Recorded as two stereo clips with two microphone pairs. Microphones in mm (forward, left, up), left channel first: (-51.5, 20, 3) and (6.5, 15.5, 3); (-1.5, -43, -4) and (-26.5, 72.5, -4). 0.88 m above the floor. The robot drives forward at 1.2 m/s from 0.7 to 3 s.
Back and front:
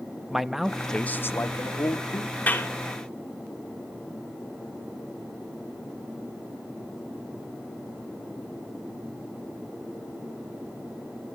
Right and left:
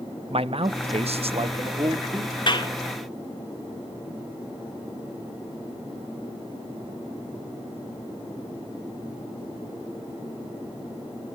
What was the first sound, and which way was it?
A man speaking, 80° left.